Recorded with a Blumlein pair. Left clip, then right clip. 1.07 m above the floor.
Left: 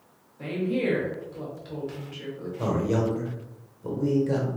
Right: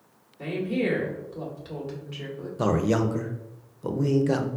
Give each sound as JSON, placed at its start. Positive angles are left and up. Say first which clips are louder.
{"t": 0.4, "sound": "a woman speaking", "louder": "even", "azimuth_deg": -5, "distance_m": 2.0}
{"t": 2.6, "sound": "a man speaking", "louder": "right 2 dB", "azimuth_deg": -65, "distance_m": 0.7}